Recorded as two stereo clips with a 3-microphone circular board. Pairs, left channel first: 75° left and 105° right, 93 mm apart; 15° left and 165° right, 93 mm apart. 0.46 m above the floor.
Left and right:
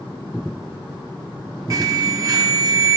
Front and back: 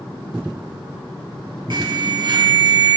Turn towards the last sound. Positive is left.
turn(degrees=-145)